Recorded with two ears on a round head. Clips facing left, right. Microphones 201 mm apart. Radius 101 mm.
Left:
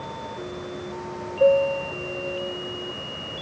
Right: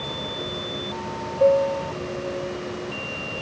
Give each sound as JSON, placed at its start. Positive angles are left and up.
{"t": 1.4, "sound": "a piano", "side_deg": 15}